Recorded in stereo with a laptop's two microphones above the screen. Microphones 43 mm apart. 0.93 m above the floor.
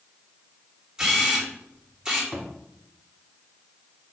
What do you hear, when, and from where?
1.0 s a camera shutter: 15° right (ahead or behind), 3 m
2.3 s a thud: 5° right (ahead or behind), 2.5 m